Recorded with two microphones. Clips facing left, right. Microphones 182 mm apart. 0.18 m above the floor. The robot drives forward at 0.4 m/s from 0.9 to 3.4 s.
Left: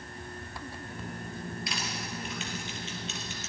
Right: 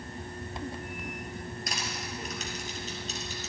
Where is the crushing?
45° right (ahead or behind), 2.5 m; by 3.5 s 35° right (ahead or behind), 3 m.